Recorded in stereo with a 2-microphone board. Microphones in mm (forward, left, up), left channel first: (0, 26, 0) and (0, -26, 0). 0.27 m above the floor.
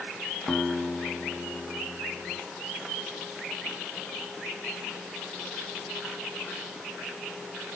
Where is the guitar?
15° left (ahead or behind), 1.8 m.